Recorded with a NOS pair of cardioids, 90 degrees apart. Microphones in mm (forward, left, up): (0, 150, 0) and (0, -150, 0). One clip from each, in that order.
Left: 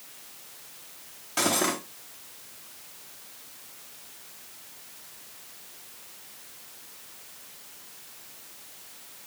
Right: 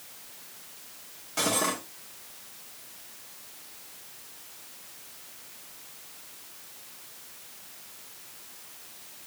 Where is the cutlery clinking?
30° left, 1.6 m.